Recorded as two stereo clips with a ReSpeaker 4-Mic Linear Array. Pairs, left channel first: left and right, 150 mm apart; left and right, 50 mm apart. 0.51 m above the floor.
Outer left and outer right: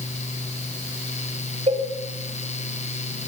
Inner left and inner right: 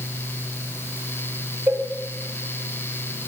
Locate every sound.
1.7 s a cowbell: 45° right (ahead or behind), 3 m